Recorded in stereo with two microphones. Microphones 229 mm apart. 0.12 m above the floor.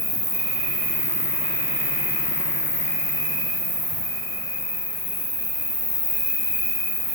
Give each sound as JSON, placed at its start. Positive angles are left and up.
{"t": 0.0, "sound": "an insect", "side_deg": -60, "distance_m": 1.7}